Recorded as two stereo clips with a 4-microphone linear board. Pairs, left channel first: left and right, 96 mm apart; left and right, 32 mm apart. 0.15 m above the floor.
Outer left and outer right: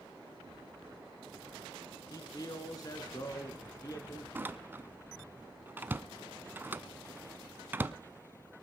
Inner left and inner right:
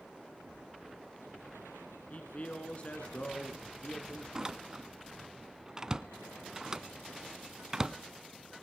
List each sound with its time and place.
2.1 s a man speaking: 40° left (ahead or behind), 1.3 m
4.3 s a door slam: 20° right (ahead or behind), 0.8 m